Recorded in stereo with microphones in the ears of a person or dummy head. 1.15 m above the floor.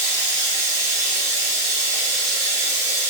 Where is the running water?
20° right (ahead or behind), 1.1 m.